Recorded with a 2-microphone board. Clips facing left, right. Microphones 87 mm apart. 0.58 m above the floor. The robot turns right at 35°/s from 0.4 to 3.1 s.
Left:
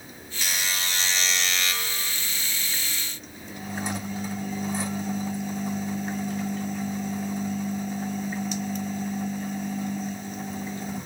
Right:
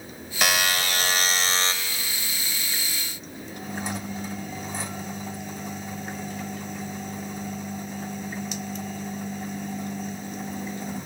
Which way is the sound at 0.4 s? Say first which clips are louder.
Right 7 dB; 75° right.